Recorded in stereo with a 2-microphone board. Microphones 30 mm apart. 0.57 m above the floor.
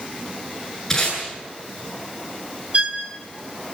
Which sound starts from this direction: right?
A violin, at 2.7 s.